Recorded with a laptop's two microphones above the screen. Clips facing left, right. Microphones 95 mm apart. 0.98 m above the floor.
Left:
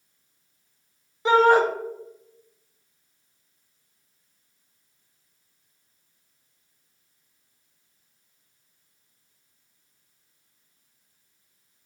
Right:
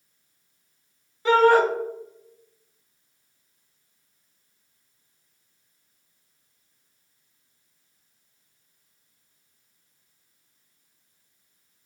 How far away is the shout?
About 0.6 m.